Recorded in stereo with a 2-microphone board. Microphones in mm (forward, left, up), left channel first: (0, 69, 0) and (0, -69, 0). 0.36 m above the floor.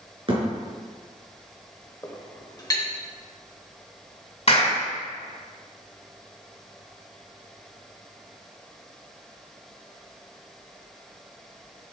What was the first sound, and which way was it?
A thud, 40° right (ahead or behind).